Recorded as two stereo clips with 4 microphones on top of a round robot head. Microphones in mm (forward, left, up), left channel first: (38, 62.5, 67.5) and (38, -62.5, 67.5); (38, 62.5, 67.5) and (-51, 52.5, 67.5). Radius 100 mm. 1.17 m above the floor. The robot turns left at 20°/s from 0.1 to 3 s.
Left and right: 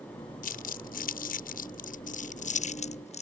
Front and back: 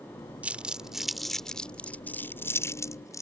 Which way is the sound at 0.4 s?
110° left.